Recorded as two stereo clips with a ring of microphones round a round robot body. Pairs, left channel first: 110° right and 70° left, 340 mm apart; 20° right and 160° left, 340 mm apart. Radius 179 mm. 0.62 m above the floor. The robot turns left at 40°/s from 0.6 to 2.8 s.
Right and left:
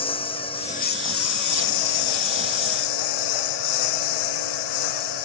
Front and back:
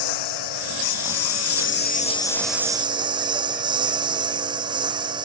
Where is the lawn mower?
35° right; by 5.2 s 125° right.